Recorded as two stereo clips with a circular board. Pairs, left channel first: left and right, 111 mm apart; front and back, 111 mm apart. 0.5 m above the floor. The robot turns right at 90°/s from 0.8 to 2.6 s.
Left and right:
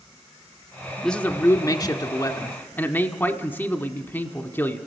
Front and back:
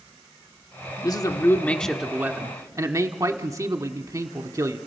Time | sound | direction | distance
1.0 | a man speaking | 5° left | 1.2 m